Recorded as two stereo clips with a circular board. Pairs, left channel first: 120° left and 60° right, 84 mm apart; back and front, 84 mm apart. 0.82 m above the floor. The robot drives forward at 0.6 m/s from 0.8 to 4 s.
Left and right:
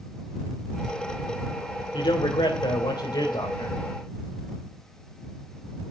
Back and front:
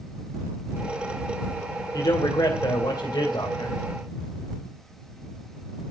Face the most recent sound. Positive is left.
turn(degrees=150)